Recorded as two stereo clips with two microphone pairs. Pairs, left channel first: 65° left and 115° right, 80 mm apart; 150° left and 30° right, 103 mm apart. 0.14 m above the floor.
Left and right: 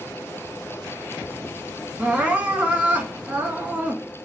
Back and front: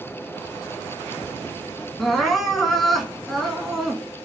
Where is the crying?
125° right, 1.1 m.